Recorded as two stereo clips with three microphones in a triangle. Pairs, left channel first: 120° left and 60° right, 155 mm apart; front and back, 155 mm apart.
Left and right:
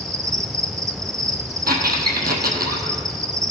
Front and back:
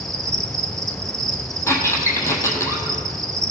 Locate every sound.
0.0 s an insect: 125° right, 0.7 m
1.7 s a squeak: 75° right, 1.3 m